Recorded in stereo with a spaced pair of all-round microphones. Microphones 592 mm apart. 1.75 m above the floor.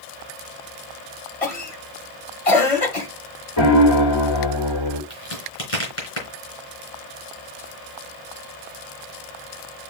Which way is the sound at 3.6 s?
50° left (ahead or behind).